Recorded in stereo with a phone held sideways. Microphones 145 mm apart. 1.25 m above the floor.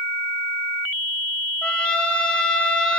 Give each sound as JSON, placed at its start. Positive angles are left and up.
{"t": 1.6, "sound": "a trumpet", "side_deg": 5, "distance_m": 0.6}